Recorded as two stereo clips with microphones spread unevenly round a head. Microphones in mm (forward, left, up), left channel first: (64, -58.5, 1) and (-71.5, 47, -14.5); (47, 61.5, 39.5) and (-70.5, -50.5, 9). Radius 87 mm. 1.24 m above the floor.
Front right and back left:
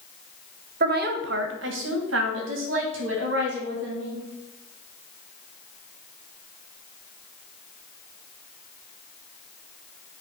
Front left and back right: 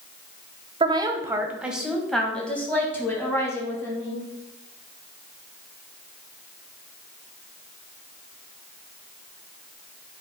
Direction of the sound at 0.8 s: 170° left.